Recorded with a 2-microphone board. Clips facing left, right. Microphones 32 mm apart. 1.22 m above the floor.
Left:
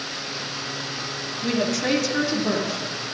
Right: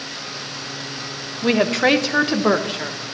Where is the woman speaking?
45° right (ahead or behind), 0.7 m; by 3.0 s 60° right (ahead or behind), 1.4 m.